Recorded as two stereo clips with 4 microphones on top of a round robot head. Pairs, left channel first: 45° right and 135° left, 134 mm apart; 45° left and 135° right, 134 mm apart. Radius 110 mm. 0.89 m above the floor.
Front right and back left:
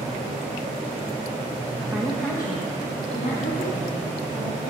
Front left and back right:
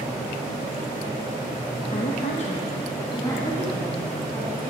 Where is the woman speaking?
55° left, 1.1 m; by 4.7 s 30° right, 3.5 m.